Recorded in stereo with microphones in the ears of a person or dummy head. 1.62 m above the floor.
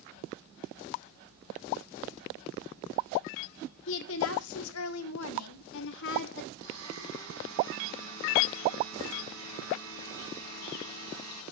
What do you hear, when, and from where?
3.9 s a woman speaking: 70° left (ahead or behind), 1.5 m; by 6.5 s 55° left (ahead or behind), 1.4 m
6.6 s a blender: 75° right (ahead or behind), 5.5 m